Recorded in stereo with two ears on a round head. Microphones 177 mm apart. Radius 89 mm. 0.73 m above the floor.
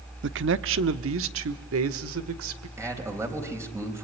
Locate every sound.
0.2 s a man speaking: 60° right (ahead or behind), 0.9 m; by 2.7 s 75° right (ahead or behind), 2.5 m
2.8 s a man speaking: 15° right (ahead or behind), 4.5 m